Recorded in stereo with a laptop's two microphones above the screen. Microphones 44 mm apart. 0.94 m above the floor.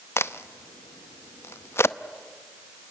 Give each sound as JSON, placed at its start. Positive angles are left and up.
{"t": 0.2, "sound": "a crack", "side_deg": 80, "distance_m": 0.6}